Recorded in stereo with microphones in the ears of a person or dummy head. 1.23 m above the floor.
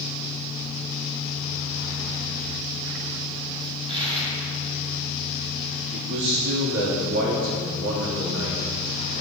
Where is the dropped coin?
30° right (ahead or behind), 4 m.